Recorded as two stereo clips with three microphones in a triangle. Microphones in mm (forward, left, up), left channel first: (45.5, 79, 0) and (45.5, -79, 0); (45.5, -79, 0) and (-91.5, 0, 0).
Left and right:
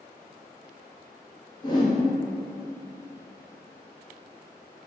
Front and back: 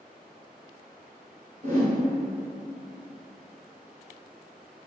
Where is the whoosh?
140° left, 0.8 m.